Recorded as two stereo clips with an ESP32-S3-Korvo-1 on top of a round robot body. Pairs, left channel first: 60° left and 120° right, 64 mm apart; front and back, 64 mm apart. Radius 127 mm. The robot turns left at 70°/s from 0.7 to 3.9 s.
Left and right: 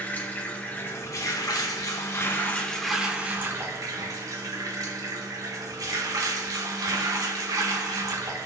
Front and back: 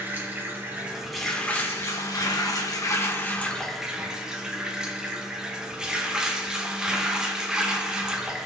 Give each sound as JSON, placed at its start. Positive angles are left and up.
{"t": 0.0, "sound": "running water", "azimuth_deg": 120, "distance_m": 1.6}